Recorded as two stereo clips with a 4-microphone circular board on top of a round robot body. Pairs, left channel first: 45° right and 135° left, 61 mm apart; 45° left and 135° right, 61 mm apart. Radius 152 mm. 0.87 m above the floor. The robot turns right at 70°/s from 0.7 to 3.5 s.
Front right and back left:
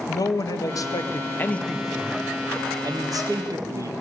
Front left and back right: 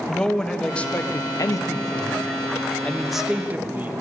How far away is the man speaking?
About 1.7 m.